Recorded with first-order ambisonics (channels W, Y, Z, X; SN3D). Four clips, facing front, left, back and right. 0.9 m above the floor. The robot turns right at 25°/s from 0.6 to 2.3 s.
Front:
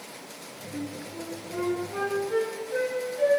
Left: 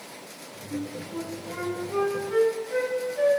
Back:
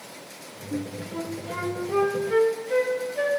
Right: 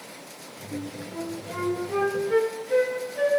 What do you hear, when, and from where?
0.7 s a flute: 165° left, 1.3 m; by 3.3 s 155° right, 1.3 m